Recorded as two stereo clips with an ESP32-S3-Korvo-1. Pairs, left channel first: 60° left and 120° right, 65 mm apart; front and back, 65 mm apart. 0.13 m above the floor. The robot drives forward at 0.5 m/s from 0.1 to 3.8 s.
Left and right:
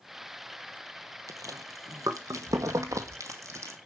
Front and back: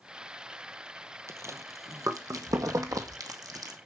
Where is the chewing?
140° right, 1.2 m; by 3.8 s 160° right, 2.5 m.